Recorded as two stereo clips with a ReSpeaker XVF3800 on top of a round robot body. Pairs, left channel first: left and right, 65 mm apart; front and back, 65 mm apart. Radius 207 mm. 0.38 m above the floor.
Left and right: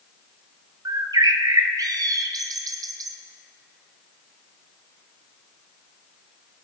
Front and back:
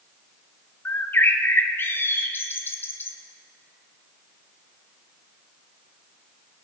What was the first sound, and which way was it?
A bird, 60° right.